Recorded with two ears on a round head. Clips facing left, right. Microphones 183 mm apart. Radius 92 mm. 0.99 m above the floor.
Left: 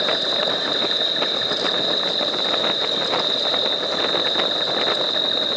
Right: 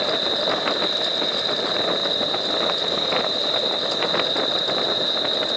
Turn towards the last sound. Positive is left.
turn(degrees=20)  # may be behind; listen again after turning